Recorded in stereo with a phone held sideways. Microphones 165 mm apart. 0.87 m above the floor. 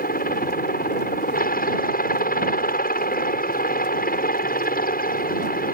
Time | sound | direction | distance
0.0 | a helicopter | 65° left (ahead or behind) | ?